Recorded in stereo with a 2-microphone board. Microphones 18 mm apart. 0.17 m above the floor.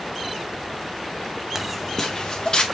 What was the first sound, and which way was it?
Footsteps, 20° right (ahead or behind).